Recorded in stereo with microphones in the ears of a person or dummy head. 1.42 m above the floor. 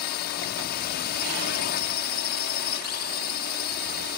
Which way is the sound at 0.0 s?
45° left (ahead or behind).